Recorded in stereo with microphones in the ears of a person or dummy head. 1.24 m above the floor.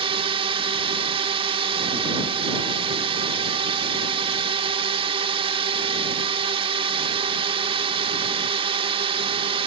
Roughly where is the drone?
Right.